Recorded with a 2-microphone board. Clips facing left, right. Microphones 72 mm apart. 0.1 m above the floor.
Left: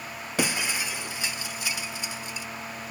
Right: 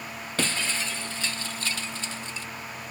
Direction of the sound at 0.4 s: 10° left (ahead or behind).